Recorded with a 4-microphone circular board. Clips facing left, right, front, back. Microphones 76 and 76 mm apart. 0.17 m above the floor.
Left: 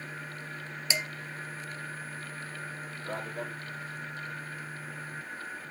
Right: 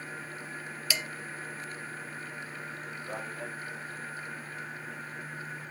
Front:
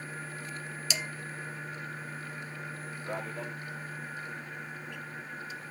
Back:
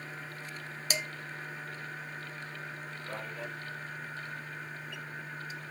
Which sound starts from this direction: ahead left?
A man speaking, at 3.0 s.